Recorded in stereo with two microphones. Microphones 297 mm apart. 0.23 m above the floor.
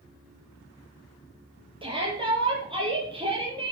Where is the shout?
15° right (ahead or behind), 6 m.